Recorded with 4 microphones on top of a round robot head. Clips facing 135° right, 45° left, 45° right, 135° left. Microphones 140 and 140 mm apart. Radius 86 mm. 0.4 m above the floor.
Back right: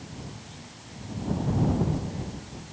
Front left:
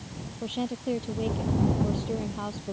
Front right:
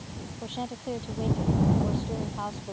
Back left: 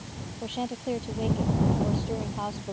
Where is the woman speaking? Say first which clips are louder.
Front left 17 dB, back left 3 dB; 60° left.